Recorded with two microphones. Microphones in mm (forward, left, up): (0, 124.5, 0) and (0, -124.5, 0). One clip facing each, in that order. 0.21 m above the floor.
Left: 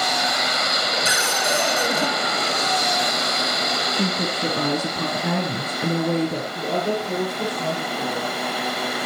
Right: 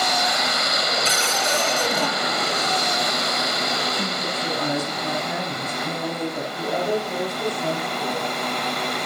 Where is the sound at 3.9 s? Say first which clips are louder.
Left 4 dB; 70° left (ahead or behind), 3.5 m.